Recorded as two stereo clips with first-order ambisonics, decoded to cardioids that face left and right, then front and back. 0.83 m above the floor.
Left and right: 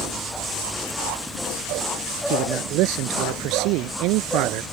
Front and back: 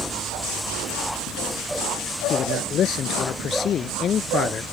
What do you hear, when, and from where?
2.3 s a man speaking: 55° right; by 4.6 s 65° right